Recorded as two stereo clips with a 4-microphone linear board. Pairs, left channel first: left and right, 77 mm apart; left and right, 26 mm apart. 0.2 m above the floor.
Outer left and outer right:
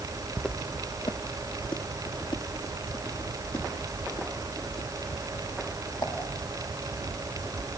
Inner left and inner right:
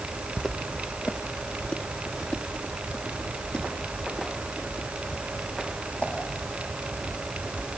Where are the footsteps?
Centre (ahead or behind), 0.6 m; by 6.1 s 65° left (ahead or behind), 8 m.